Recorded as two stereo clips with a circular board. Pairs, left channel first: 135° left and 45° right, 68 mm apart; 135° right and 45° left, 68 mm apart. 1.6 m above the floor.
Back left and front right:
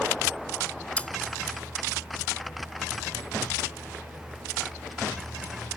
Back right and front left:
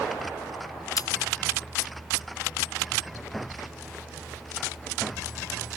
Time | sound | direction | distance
1.0 | cutlery clinking | 155° right | ?